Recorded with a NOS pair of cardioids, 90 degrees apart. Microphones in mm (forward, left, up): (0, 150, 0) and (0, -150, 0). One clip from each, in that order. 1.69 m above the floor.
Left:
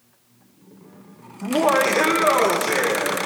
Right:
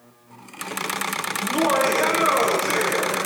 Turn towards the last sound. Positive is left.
turn(degrees=30)